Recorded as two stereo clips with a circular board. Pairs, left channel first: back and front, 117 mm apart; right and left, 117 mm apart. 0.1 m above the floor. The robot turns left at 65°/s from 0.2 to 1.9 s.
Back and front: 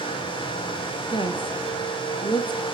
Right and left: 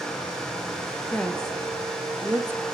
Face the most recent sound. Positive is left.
turn(degrees=155)